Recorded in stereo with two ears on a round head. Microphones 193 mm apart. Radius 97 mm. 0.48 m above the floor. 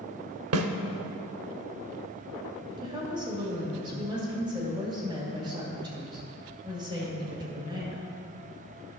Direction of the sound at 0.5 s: 75° right (ahead or behind).